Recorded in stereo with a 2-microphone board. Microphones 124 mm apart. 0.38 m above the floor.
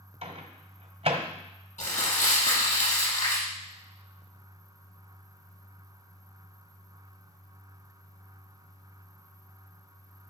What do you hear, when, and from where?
0.2 s a microwave: 60° right (ahead or behind), 1.4 m
1.8 s crumpling: 85° left, 5.5 m